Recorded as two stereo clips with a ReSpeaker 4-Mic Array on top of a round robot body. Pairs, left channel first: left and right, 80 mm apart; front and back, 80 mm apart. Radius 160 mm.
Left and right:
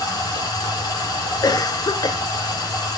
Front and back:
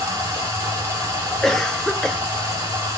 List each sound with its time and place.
0.0 s running water: 125° left, 2.5 m
1.4 s a cough: 85° left, 0.6 m